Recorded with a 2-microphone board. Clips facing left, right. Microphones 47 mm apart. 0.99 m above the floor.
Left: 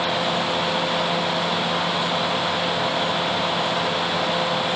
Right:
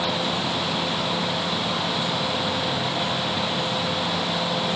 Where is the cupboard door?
I don't hear a cupboard door.